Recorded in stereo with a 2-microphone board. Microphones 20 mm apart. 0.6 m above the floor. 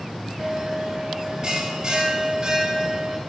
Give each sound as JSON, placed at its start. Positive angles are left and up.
{"t": 0.4, "sound": "a bell", "side_deg": -30, "distance_m": 4.0}